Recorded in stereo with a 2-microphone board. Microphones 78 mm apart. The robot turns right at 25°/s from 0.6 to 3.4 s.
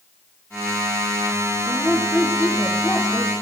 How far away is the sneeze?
I don't hear a sneeze.